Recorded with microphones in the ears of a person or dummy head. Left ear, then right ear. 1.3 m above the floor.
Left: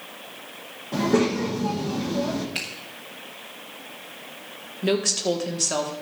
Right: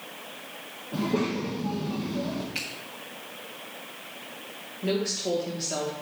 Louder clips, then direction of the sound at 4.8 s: Left 5 dB; 50° left (ahead or behind).